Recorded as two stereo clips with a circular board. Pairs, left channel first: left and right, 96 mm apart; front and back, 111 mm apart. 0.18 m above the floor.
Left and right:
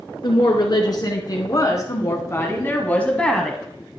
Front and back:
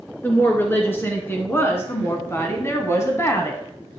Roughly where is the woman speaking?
Left.